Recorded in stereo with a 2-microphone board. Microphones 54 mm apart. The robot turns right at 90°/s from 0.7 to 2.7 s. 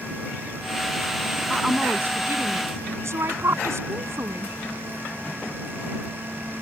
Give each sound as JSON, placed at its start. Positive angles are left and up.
{"t": 1.5, "sound": "a woman speaking", "azimuth_deg": 175}